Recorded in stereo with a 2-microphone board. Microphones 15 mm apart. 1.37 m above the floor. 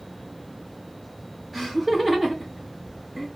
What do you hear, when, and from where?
1.5 s laughter: 30° right (ahead or behind), 1.1 m